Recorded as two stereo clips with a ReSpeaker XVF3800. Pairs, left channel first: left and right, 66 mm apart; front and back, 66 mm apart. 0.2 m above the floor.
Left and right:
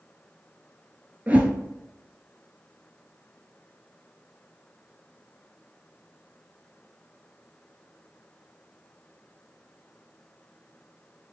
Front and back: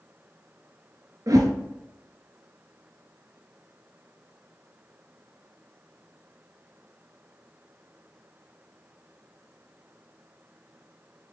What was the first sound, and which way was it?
A whoosh, 155° right.